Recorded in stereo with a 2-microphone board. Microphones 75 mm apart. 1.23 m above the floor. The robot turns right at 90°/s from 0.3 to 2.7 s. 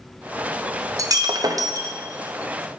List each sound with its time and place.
1.0 s breaking glass: 125° right, 0.7 m; by 1.9 s 40° right, 0.7 m